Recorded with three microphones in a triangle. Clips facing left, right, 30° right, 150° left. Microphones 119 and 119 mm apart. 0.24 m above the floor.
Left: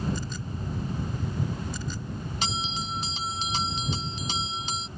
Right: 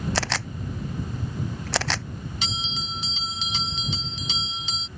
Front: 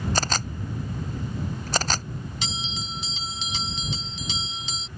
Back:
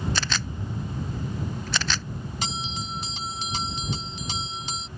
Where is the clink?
No clink in this recording.